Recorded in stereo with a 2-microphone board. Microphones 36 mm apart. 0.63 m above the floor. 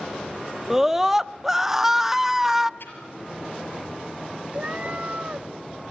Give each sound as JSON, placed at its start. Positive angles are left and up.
{"t": 0.7, "sound": "a scream", "side_deg": -15, "distance_m": 0.6}
{"t": 2.8, "sound": "a splash", "side_deg": 70, "distance_m": 5.0}
{"t": 4.5, "sound": "a cat meowing", "side_deg": -40, "distance_m": 0.5}